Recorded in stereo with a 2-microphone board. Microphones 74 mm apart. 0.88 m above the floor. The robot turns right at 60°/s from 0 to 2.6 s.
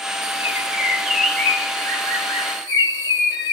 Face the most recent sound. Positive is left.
turn(degrees=95)